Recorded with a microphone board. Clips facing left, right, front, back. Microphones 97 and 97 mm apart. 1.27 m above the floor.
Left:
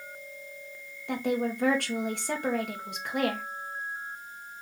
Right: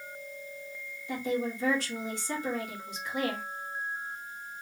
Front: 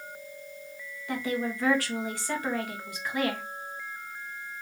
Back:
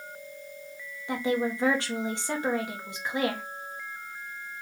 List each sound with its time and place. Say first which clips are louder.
1.1 s a woman speaking: left 3 dB, back 3 dB; 115° left, 1.1 m